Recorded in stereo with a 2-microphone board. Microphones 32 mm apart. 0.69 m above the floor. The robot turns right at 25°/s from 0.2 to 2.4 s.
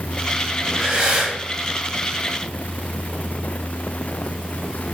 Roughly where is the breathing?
Right.